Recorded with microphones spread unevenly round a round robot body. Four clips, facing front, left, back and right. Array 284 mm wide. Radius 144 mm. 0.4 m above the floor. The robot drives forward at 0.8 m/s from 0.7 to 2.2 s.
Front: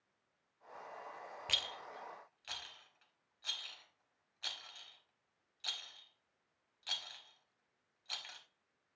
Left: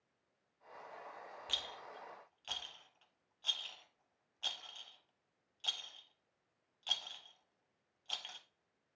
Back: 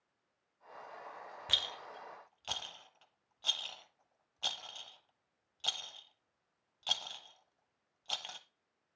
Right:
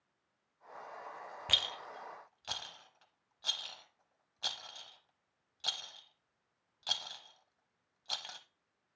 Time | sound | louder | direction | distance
1.5 | a rattle | right 9 dB, back 4 dB | 100° right | 0.6 m